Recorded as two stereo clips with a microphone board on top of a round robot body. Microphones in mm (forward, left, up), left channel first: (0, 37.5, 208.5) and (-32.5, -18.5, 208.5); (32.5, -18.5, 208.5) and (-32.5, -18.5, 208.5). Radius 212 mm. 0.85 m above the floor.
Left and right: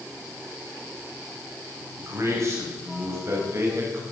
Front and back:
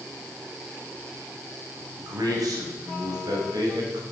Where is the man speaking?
160° right, 6.5 m; by 4.0 s 170° right, 5.5 m.